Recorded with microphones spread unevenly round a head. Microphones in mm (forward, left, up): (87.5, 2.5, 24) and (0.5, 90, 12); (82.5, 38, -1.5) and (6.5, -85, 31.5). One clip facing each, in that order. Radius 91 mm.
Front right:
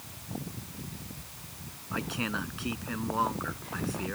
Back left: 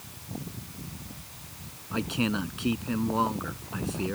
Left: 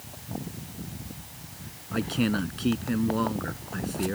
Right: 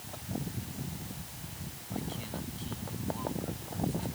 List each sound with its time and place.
1.9 s a man speaking: 70° left